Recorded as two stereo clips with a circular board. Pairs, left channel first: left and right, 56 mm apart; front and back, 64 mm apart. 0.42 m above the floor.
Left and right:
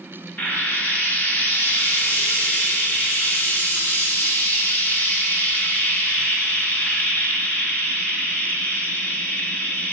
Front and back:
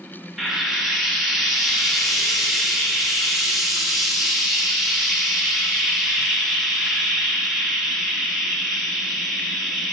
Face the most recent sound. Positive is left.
turn(degrees=95)